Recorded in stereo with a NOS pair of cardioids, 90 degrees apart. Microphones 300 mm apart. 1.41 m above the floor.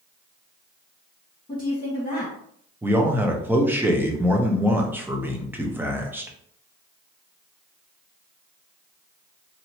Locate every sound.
1.5 s a woman speaking: 15° left, 1.5 m
2.8 s a man speaking: 5° right, 0.8 m